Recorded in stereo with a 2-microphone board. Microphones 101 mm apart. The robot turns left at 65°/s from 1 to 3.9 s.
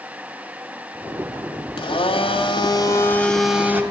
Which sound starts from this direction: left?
A blender, at 1.8 s.